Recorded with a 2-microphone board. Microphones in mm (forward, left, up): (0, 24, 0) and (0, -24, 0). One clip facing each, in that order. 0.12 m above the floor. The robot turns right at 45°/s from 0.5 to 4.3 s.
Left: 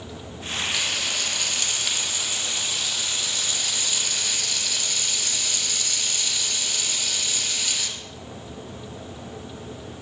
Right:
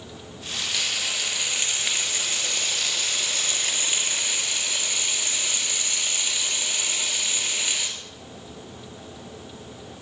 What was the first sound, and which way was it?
Frying, 170° left.